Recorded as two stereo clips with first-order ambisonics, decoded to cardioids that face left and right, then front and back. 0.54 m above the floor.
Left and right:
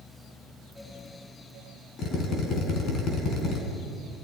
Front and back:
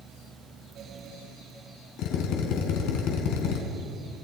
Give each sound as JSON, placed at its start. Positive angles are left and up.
{"t": 2.0, "sound": "a drill", "azimuth_deg": 35, "distance_m": 4.0}